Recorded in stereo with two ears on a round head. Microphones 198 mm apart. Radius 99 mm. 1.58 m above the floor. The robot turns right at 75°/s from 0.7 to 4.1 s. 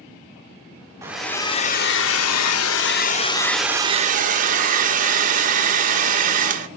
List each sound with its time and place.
1.0 s a hair dryer: 15° right, 1.0 m; by 6.7 s 140° right, 1.0 m